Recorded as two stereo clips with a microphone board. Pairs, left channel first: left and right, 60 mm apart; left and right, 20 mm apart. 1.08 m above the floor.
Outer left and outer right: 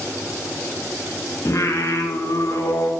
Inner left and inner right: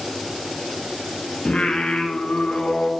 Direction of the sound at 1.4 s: 60° left (ahead or behind).